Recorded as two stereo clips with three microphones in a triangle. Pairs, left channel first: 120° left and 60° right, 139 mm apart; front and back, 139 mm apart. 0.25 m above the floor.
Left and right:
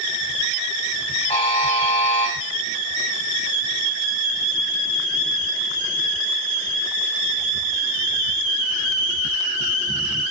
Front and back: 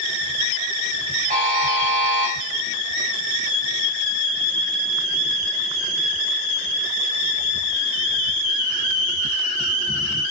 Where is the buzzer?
170° left, 3 m.